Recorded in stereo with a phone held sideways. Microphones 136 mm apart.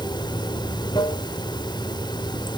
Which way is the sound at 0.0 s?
35° left (ahead or behind).